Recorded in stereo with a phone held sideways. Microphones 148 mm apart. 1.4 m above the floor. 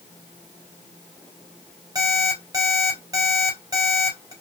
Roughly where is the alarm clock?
Right.